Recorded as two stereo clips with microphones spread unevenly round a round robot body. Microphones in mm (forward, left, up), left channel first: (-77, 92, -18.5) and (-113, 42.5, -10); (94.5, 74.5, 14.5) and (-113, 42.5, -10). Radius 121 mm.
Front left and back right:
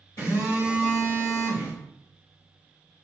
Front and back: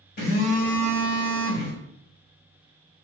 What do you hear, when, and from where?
0.2 s a phone buzzing: 50° left, 2 m